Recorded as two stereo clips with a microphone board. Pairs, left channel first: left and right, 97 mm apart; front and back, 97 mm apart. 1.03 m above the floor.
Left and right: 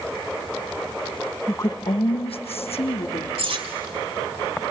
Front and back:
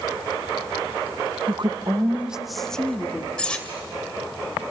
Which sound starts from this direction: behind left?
A woman speaking, at 1.5 s.